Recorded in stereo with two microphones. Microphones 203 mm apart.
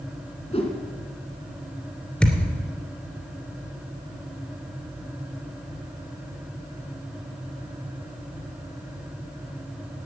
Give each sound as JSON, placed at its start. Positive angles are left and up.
{"t": 0.5, "sound": "a whoosh", "side_deg": 30, "distance_m": 2.0}
{"t": 2.2, "sound": "a thud", "side_deg": 5, "distance_m": 2.5}